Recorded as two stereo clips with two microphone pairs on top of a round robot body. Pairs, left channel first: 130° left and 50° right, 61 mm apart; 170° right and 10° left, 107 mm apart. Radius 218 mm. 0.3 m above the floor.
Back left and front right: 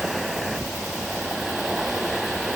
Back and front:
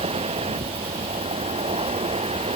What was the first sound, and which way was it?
An insect, 35° left.